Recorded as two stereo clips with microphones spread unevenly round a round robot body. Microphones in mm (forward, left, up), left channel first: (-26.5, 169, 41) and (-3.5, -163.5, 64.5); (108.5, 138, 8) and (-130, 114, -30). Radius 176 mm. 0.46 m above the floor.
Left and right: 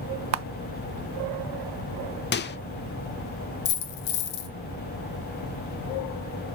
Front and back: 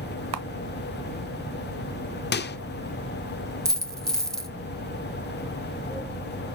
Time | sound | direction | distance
0.3 | a camera shutter | 140° right | 0.7 m
2.3 | a microwave | 50° left | 0.8 m
3.6 | a dropped coin | 90° left | 1.5 m